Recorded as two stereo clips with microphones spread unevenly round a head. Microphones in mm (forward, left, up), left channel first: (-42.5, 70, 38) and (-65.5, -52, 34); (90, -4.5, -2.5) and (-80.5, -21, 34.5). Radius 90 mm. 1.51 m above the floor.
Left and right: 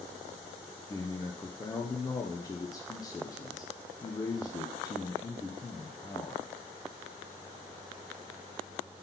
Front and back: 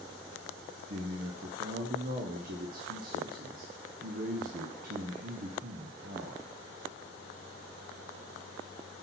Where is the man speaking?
140° left, 0.8 m.